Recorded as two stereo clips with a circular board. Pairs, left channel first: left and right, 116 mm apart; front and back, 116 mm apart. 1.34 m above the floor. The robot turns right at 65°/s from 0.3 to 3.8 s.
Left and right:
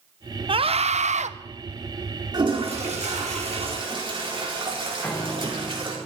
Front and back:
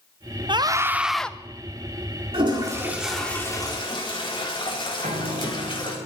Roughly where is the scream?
Behind right.